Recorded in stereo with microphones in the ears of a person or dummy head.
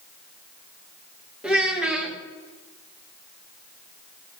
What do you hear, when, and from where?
1.4 s a child speaking: centre (ahead or behind), 0.9 m